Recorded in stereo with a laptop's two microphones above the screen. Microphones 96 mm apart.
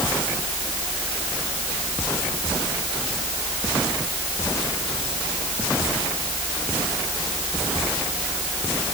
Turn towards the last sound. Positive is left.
No sound to turn to.